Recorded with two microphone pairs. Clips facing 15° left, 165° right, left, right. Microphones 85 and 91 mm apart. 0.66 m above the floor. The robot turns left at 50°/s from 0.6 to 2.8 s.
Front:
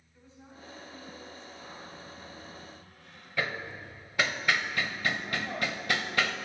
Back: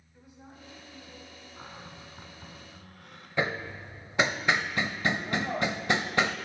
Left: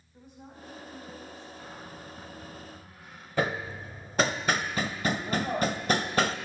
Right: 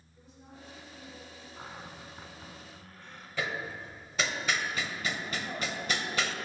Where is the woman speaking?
125° left, 4.5 m; by 1.5 s 80° left, 4.5 m.